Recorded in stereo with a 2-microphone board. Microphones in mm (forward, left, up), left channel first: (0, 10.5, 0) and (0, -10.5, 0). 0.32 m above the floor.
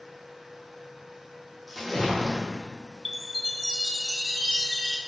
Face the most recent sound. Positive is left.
turn(degrees=30)  # may be behind; listen again after turning